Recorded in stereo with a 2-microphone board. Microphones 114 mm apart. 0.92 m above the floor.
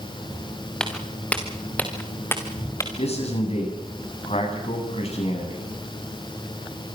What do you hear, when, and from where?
0.8 s footsteps: 10° left (ahead or behind), 4 m; by 2.9 s 25° left (ahead or behind), 3.5 m
3.0 s a man speaking: 60° left (ahead or behind), 8.5 m